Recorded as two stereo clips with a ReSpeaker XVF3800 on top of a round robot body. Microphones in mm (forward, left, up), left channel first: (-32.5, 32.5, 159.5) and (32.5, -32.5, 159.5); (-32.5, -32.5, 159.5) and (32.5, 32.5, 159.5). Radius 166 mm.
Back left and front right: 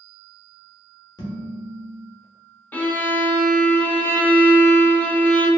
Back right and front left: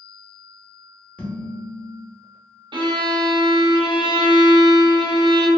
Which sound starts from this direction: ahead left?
A violin, at 2.7 s.